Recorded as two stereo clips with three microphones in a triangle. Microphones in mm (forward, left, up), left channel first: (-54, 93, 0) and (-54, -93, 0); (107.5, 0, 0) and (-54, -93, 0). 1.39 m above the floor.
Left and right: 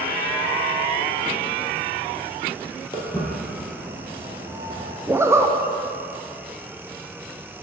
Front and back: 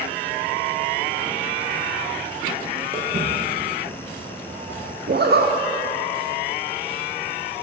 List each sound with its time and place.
2.9 s footsteps: 150° left, 2.0 m; by 5.0 s 120° right, 1.6 m
5.1 s a zipper: 165° right, 0.6 m